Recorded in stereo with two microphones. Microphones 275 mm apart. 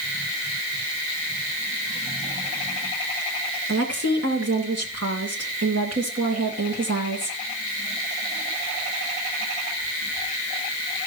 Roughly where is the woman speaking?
Right.